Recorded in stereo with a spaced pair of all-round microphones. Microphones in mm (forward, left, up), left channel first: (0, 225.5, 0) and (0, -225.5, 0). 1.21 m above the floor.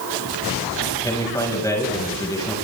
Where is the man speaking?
10° left (ahead or behind), 6.5 m.